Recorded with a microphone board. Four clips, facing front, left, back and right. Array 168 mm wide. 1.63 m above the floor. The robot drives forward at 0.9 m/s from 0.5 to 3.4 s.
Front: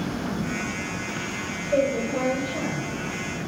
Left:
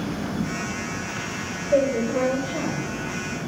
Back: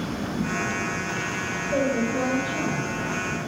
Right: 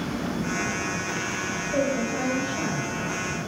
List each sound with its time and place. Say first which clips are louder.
1.7 s a woman speaking: left 6 dB, front 1 dB; 95° left, 5 m; by 3.0 s 110° left, 5.5 m